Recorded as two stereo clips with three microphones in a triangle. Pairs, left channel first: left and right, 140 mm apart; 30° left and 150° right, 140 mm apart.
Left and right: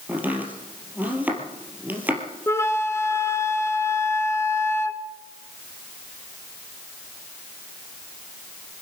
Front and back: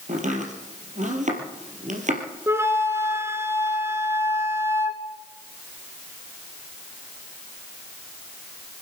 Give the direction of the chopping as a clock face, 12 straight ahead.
6 o'clock.